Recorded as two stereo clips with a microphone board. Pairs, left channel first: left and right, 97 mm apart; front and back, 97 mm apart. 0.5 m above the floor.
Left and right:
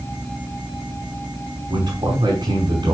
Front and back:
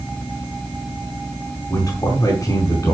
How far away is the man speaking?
About 5 m.